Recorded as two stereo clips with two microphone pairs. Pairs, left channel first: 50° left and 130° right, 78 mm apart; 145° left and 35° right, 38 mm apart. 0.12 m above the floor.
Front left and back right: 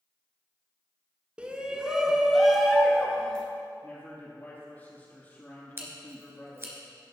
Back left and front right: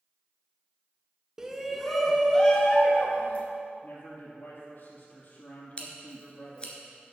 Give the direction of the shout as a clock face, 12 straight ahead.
3 o'clock.